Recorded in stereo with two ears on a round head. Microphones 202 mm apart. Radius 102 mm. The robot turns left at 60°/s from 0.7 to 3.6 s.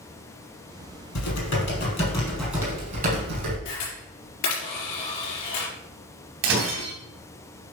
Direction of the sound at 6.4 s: 55° right (ahead or behind).